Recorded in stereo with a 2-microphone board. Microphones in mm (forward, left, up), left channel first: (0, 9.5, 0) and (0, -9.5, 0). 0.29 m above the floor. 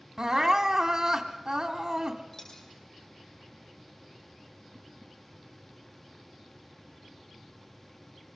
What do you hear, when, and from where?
0.2 s crying: 30° right (ahead or behind), 1.8 m
2.3 s a dropped coin: 20° left (ahead or behind), 4.5 m